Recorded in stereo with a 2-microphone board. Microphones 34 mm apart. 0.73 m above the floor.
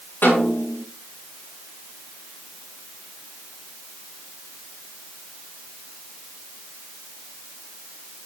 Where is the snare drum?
85° left, 9.5 m.